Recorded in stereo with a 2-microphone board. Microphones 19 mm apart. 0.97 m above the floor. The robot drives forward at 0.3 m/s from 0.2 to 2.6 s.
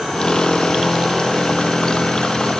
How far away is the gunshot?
No gunshot in this recording.